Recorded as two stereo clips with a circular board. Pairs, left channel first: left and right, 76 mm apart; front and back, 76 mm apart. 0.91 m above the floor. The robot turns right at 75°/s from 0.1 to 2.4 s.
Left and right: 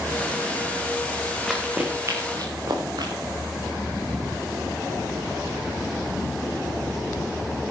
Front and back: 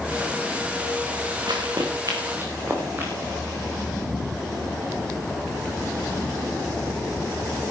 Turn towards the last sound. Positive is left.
turn(degrees=-120)